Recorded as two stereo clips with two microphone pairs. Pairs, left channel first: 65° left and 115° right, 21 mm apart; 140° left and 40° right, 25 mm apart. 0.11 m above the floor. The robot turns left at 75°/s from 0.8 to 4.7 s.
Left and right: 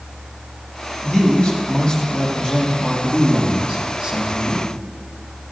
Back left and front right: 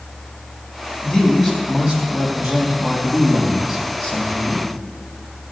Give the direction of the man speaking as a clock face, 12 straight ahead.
9 o'clock.